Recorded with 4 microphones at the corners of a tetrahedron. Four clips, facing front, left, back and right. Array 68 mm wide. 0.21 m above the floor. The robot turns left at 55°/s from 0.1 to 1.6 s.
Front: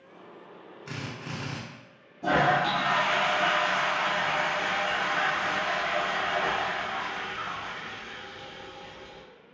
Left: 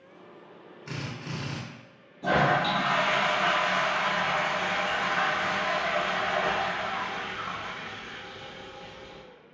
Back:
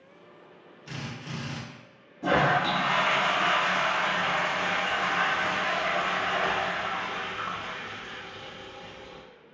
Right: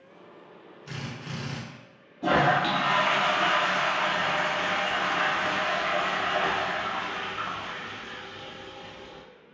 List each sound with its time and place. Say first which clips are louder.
0.9 s a drill: left 1 dB, front 1 dB; 40° left, 0.9 m; by 1.6 s straight ahead, 0.9 m
2.2 s a toilet flushing: right 1 dB, even; 95° right, 1.1 m